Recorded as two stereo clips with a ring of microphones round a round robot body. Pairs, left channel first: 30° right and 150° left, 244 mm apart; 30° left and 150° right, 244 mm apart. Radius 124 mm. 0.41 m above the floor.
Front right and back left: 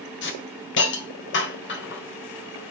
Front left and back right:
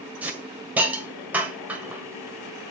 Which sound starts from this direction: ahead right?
A hiss, at 0.2 s.